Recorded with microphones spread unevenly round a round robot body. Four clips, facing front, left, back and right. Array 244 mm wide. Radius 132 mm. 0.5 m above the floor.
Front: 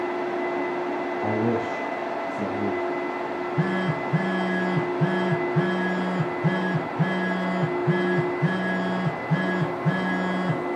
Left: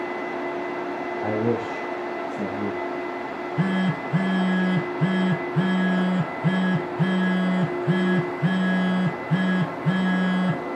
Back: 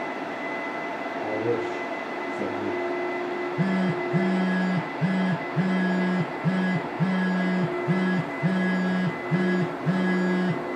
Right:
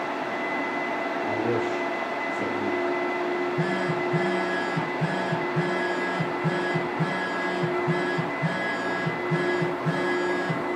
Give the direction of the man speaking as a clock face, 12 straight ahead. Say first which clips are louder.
Left 3 dB, front 1 dB; 11 o'clock.